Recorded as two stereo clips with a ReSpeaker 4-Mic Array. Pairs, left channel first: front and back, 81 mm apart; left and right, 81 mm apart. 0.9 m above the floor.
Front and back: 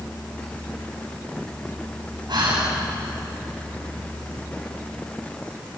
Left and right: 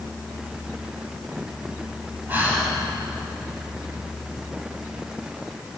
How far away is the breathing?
About 7 m.